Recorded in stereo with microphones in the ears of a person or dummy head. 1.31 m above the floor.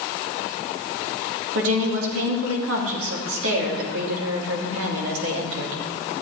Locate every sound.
1.6 s a woman speaking: 85° right, 2.5 m